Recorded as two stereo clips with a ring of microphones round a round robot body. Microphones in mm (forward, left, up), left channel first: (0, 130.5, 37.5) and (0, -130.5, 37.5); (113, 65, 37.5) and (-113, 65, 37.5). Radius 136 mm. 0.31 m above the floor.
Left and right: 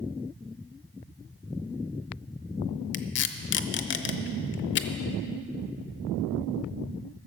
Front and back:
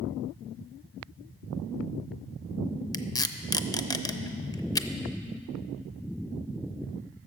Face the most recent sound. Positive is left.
turn(degrees=70)